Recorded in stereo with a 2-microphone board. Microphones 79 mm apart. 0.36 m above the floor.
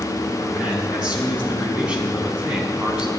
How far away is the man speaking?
About 3.5 m.